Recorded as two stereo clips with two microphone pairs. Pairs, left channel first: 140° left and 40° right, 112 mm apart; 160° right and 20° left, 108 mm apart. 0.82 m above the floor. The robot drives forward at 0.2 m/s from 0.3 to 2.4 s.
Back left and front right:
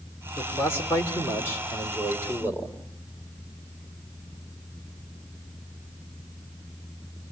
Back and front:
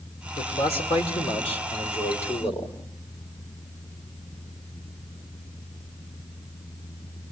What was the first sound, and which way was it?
A man speaking, 150° right.